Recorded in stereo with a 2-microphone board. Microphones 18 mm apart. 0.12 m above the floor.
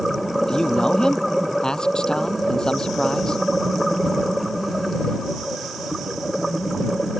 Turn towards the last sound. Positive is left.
turn(degrees=50)  # may be behind; listen again after turning